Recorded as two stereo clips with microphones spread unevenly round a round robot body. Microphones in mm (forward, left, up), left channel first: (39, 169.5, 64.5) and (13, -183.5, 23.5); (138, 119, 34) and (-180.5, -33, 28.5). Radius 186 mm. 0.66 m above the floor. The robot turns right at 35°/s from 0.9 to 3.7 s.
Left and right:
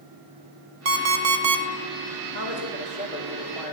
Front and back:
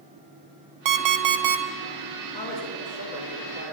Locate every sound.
0.8 s an alarm clock: 150° right, 0.6 m; by 1.6 s 120° right, 0.6 m
2.3 s a man speaking: 45° right, 1.9 m; by 3.7 s straight ahead, 1.9 m